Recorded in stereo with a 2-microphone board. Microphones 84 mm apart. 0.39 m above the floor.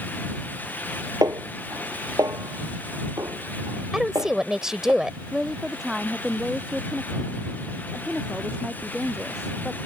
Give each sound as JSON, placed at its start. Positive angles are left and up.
{"t": 1.2, "sound": "a snare drum", "side_deg": -40}
{"t": 3.9, "sound": "a woman speaking", "side_deg": -5}
{"t": 5.3, "sound": "a woman speaking", "side_deg": -5}